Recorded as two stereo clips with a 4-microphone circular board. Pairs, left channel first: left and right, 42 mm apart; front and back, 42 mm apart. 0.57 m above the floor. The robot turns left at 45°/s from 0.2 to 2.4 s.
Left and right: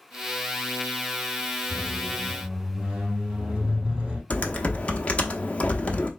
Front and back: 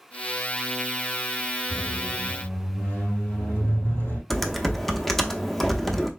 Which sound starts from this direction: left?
Typing on a keyboard, at 4.3 s.